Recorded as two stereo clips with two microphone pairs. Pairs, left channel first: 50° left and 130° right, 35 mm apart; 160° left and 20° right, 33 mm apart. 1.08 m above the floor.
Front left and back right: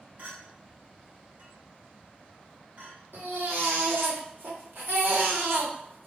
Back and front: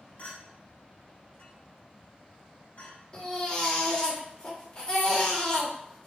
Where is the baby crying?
135° right, 1.6 m.